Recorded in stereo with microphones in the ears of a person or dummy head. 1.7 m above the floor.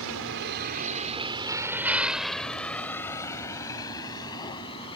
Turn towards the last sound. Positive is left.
turn(degrees=25)  # may be behind; listen again after turning